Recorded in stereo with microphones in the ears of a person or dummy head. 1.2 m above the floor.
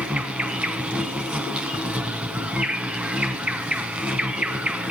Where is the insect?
5° right (ahead or behind), 1.7 m.